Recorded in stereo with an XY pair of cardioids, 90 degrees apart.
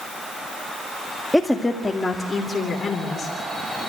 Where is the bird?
I don't hear a bird.